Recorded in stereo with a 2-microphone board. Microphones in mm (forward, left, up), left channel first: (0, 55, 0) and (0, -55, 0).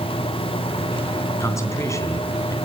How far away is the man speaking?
About 3 m.